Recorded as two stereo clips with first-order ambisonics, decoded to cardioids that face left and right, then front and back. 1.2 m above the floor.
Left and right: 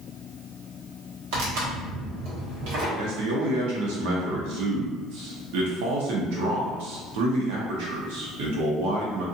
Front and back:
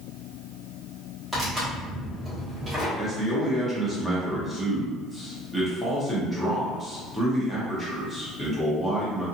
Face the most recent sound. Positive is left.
turn(degrees=-85)